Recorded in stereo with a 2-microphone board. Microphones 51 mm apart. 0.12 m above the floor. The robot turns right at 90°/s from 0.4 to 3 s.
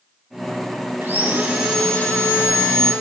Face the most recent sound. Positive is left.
turn(degrees=120)